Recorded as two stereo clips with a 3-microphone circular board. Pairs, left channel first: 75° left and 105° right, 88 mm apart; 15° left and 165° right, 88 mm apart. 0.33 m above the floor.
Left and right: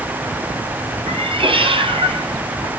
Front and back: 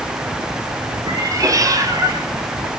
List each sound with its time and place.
1.1 s a cat meowing: 115° right, 2 m